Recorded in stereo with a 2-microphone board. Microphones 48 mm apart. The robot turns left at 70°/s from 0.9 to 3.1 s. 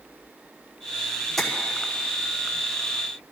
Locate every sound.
1.4 s tapping: centre (ahead or behind), 5.5 m; by 1.5 s 10° left (ahead or behind), 5.5 m